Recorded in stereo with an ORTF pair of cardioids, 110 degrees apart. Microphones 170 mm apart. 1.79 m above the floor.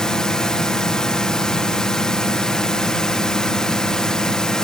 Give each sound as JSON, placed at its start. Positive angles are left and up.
{"t": 0.0, "sound": "a drone", "azimuth_deg": 5}